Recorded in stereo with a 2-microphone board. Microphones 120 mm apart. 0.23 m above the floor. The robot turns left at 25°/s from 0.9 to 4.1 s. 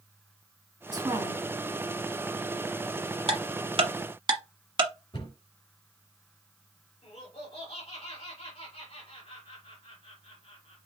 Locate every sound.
0.9 s a woman speaking: 30° right (ahead or behind), 2 m; by 1.4 s 25° right (ahead or behind), 2 m
3.3 s ticking: 55° right (ahead or behind), 1.2 m; by 4.9 s 45° right (ahead or behind), 1.2 m
5.1 s a cupboard door: 50° left (ahead or behind), 2.5 m
7.0 s laughter: 60° left (ahead or behind), 2.5 m